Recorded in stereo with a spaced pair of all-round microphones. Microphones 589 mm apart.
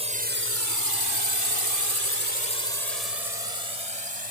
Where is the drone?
10° right (ahead or behind); by 4.3 s 60° right (ahead or behind).